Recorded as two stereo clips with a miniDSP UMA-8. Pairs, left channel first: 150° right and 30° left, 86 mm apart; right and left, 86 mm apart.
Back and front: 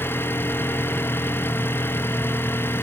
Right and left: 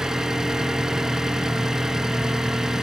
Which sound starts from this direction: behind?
An engine running, at 0.0 s.